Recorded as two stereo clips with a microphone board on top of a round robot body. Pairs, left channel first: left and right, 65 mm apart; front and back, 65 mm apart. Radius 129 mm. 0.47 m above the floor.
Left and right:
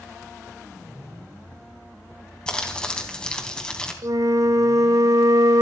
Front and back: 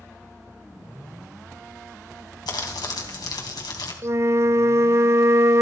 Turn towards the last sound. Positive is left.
turn(degrees=-130)